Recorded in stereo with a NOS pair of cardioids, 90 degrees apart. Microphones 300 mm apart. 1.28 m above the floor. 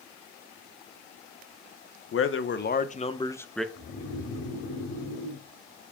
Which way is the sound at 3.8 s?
65° left.